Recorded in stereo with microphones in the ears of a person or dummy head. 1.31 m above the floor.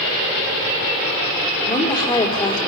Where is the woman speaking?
20° left (ahead or behind), 4 m.